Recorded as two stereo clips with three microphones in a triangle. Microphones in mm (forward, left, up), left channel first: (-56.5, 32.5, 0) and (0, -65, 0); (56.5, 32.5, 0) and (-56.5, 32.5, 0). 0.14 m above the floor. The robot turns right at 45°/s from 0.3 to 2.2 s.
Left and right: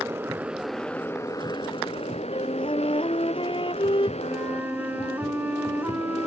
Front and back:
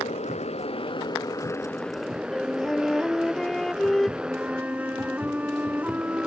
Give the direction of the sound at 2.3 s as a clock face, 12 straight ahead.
9 o'clock.